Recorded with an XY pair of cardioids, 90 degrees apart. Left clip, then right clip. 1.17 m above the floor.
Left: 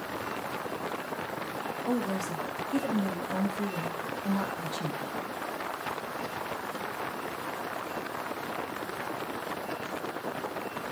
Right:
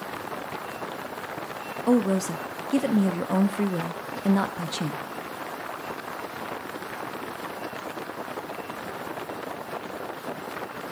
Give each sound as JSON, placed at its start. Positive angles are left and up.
{"t": 1.9, "sound": "a woman speaking", "azimuth_deg": -60, "distance_m": 0.5}